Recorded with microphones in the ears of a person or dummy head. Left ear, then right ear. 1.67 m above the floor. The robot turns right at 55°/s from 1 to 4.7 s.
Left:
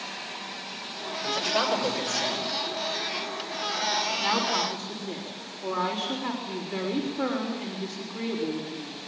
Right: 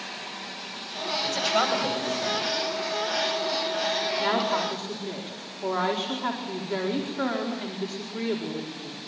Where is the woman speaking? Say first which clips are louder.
Right 1 dB; 25° right (ahead or behind), 4.5 m; by 9.0 s 50° right (ahead or behind), 4.5 m.